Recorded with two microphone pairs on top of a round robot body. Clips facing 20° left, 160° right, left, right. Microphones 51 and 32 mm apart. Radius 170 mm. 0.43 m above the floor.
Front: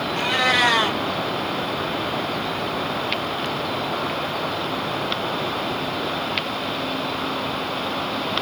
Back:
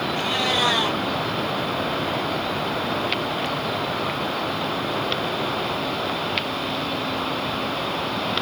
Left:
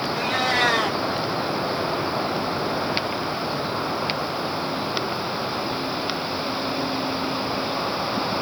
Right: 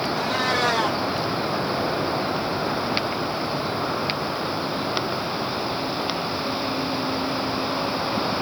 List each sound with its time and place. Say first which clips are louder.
0.1 s a cat meowing: front 6 dB, left 3 dB; 50° left, 1.3 m